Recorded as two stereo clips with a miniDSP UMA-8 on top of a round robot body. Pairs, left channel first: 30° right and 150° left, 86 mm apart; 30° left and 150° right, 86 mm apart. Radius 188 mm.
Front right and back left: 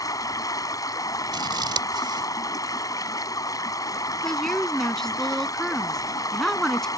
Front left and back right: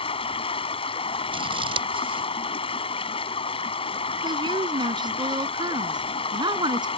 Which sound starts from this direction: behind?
Scissors, at 1.3 s.